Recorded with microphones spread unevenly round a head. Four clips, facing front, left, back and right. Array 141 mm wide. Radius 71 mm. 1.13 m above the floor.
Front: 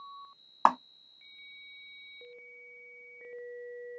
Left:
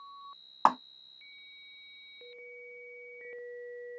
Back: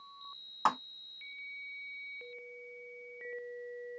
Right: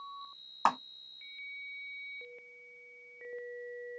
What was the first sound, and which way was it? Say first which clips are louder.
A clap: left 4 dB, front 6 dB; 25° left.